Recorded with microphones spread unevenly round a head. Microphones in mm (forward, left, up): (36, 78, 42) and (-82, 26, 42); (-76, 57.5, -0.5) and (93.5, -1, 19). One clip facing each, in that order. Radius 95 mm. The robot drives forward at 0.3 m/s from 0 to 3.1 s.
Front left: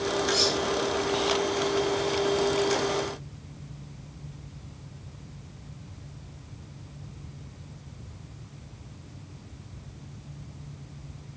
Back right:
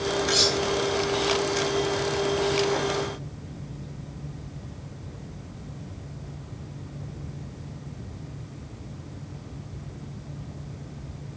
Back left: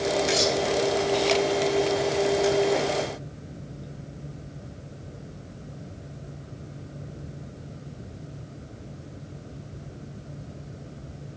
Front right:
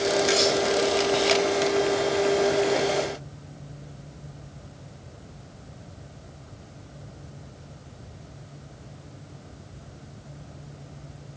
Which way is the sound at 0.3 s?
125° right.